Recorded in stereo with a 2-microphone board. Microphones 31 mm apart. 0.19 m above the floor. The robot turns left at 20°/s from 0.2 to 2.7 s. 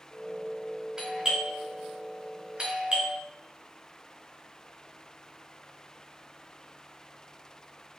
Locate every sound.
1.0 s a doorbell: 15° right (ahead or behind), 1.8 m; by 3.2 s 25° right (ahead or behind), 1.8 m